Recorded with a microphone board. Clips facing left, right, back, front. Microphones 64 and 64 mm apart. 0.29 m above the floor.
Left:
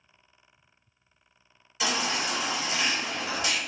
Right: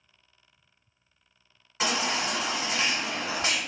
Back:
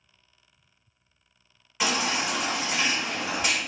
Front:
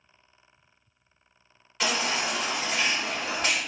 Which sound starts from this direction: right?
A baby crying, at 1.8 s.